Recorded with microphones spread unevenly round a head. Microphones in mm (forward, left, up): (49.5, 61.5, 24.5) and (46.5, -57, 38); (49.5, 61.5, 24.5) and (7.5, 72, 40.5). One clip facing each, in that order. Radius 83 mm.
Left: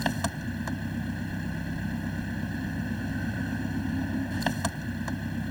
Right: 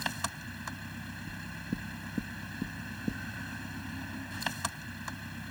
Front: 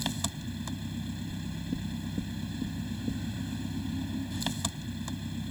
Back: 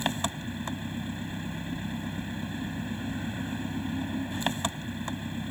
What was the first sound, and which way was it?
An engine running, 120° left.